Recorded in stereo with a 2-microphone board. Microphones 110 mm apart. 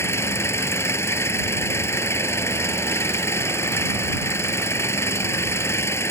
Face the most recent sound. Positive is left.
turn(degrees=25)  # may be behind; listen again after turning